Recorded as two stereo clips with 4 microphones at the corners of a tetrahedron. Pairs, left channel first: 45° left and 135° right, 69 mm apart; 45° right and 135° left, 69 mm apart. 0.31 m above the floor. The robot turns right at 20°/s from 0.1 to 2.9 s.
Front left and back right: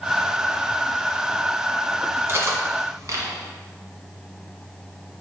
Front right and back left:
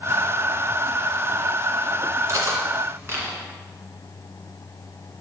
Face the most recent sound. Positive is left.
turn(degrees=-175)